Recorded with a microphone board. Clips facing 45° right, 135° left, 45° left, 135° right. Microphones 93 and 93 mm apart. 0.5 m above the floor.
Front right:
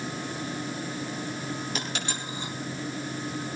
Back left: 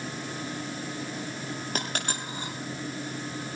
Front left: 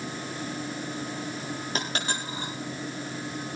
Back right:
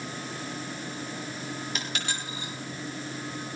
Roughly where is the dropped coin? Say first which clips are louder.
Back left 1 dB, front left 3 dB; left.